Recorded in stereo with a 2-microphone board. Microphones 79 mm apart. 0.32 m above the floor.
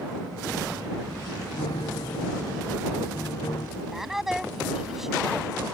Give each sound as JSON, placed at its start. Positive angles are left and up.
{"t": 1.6, "sound": "a piano", "side_deg": 65}
{"t": 3.8, "sound": "a woman speaking", "side_deg": -5}